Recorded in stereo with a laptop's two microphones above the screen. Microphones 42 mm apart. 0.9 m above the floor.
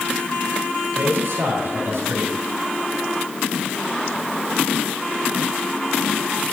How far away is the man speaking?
About 4.5 m.